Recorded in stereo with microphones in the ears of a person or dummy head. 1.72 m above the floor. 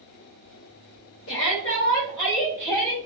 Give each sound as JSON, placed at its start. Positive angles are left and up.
{"t": 1.3, "sound": "a shout", "side_deg": 25, "distance_m": 0.7}